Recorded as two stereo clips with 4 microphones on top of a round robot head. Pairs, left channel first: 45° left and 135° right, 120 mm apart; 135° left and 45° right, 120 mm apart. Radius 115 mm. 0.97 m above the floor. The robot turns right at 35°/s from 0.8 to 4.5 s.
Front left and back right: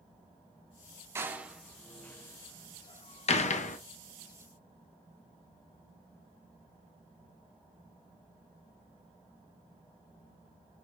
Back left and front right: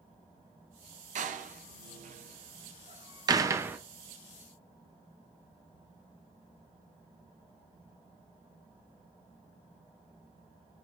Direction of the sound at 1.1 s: 60° right.